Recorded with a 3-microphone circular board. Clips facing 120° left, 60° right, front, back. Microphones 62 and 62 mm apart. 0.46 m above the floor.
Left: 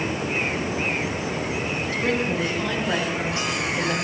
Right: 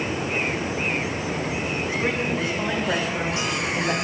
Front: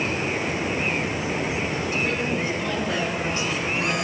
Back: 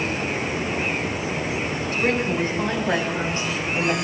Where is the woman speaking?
135° right, 4.5 m; by 4.0 s 110° right, 2.5 m.